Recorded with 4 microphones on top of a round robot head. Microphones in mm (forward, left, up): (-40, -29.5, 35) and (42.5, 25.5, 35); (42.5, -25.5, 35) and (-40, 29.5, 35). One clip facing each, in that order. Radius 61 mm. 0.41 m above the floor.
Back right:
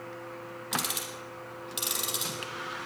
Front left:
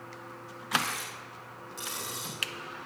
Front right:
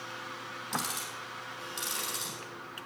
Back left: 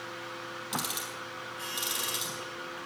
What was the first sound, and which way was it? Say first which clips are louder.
Ticking: front left 4 dB, front right 1 dB; 135° right.